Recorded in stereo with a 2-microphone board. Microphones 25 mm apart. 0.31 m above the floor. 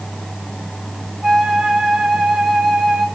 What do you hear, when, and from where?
1.2 s a flute: 20° right (ahead or behind), 1.8 m